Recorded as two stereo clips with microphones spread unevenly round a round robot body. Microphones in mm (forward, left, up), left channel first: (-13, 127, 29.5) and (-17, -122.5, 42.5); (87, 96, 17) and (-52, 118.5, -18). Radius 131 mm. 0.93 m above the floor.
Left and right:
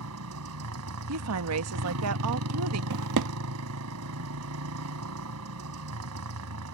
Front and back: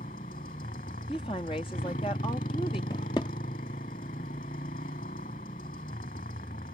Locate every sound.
0.0 s a motorcycle: 60° right
1.1 s a woman speaking: 80° right
2.9 s a drawer: 80° right